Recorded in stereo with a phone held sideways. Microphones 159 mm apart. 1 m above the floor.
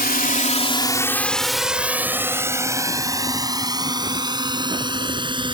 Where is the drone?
70° left (ahead or behind); by 5.5 s 30° right (ahead or behind).